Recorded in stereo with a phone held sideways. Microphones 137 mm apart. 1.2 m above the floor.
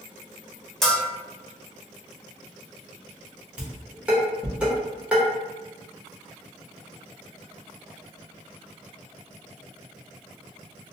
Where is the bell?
5° left (ahead or behind), 0.6 m.